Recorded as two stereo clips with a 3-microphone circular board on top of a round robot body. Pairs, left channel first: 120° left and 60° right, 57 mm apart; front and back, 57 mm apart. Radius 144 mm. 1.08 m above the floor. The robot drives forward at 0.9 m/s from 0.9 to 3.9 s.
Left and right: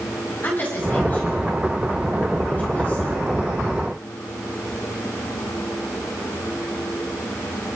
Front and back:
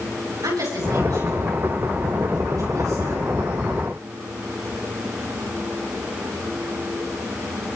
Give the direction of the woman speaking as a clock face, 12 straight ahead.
6 o'clock.